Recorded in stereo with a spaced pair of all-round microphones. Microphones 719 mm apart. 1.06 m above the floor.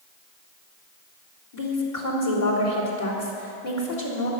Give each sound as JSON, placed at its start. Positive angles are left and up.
{"t": 1.5, "sound": "a woman speaking", "side_deg": 70, "distance_m": 4.0}